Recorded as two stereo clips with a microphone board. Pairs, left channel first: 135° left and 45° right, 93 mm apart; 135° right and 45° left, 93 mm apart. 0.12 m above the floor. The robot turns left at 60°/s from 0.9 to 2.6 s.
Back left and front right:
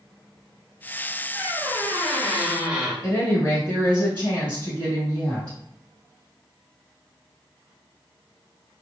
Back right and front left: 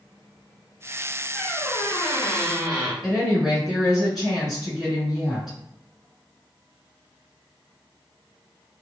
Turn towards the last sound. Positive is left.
turn(degrees=130)